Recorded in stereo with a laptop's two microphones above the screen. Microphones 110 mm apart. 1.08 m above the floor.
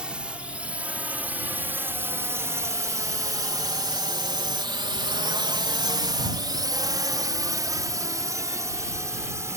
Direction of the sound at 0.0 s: 10° right (ahead or behind).